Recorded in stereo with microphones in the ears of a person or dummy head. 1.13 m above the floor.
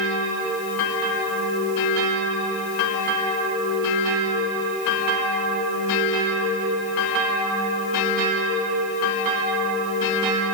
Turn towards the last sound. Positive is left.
No sound to turn to.